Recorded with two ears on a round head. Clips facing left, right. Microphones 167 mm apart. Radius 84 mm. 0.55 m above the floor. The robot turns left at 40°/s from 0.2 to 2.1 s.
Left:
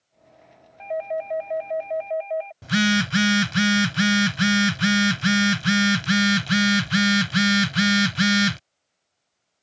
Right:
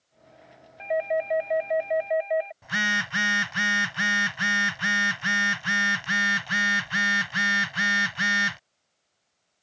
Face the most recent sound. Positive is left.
turn(degrees=45)  # may be behind; listen again after turning